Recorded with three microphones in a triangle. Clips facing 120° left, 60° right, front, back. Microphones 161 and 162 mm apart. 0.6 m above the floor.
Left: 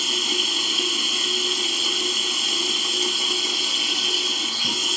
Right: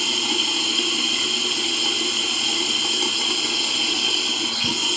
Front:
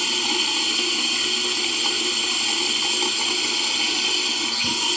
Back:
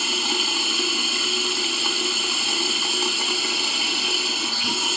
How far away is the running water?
About 1.0 m.